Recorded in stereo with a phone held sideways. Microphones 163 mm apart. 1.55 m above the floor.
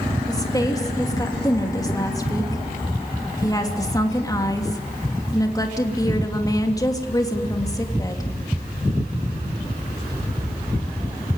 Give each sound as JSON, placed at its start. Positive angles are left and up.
{"t": 0.3, "sound": "a woman speaking", "side_deg": 20, "distance_m": 3.0}